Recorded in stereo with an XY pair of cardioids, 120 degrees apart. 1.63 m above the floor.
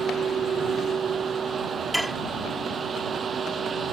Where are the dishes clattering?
5° right.